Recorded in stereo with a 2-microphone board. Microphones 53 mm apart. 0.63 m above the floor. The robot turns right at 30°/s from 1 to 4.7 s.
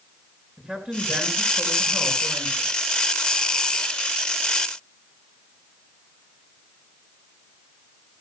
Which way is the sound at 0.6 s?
160° right.